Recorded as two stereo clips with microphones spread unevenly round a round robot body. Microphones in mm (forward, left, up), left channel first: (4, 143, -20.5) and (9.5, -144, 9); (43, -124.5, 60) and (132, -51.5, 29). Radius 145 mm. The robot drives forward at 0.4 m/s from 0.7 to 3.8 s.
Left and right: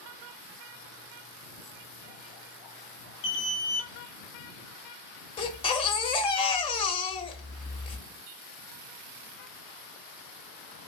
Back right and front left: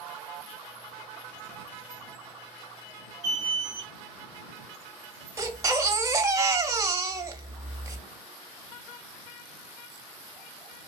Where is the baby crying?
40° left, 0.6 m.